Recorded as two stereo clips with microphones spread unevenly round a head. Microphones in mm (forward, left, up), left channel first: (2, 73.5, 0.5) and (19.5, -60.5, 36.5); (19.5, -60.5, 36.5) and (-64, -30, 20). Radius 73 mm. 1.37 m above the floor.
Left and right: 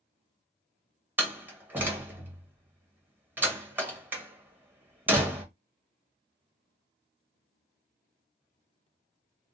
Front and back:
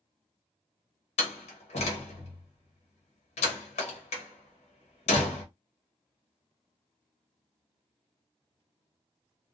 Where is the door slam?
10° right, 1.0 m.